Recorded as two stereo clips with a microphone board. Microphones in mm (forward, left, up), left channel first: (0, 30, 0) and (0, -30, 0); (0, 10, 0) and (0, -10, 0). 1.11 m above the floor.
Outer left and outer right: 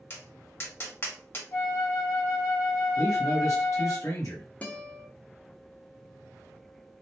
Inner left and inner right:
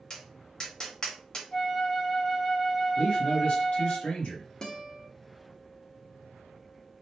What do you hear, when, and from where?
0.1 s tapping: 40° left (ahead or behind), 0.9 m
1.5 s a flute: 55° left (ahead or behind), 0.9 m
3.0 s a man speaking: 65° left (ahead or behind), 1.4 m
4.6 s a guitar: 25° left (ahead or behind), 0.6 m